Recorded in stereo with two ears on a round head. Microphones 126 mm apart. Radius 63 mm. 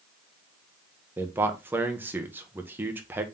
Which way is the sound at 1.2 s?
15° right (ahead or behind).